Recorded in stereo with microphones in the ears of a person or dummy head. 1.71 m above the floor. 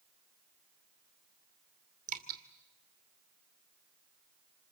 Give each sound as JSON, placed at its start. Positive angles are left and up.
{"t": 2.1, "sound": "dripping", "side_deg": -50, "distance_m": 2.5}